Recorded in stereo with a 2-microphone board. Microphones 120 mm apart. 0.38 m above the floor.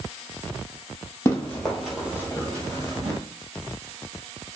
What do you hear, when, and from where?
1.2 s running footsteps: 25° left (ahead or behind), 0.8 m; by 3.2 s 40° right (ahead or behind), 1.2 m